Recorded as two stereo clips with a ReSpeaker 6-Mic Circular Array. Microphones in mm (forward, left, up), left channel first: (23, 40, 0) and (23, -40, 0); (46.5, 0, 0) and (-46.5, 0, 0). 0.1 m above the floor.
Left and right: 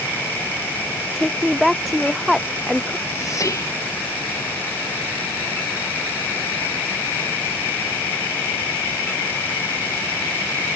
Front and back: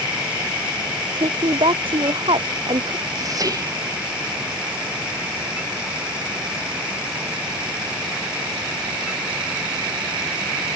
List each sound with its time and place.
1.1 s a woman speaking: straight behind; by 3.0 s 175° right
3.2 s whispering: 135° left